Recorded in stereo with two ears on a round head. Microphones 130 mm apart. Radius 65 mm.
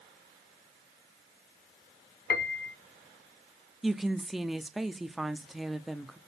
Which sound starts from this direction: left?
A piano, at 2.3 s.